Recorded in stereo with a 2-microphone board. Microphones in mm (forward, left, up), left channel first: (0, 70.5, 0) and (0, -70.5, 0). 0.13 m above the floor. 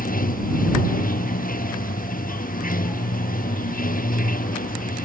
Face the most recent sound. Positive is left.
turn(degrees=85)